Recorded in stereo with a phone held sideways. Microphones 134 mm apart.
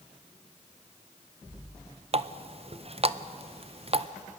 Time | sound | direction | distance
2.1 | a running tap | 45° right (ahead or behind) | 0.5 m